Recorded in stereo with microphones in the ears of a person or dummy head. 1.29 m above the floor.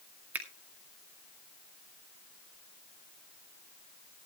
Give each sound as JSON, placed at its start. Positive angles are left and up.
{"t": 0.3, "sound": "a finger snap", "side_deg": -10, "distance_m": 2.0}